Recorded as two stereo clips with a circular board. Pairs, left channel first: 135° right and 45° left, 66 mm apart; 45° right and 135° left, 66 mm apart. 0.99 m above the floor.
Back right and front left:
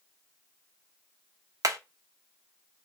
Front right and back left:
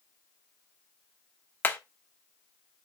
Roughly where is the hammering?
Ahead.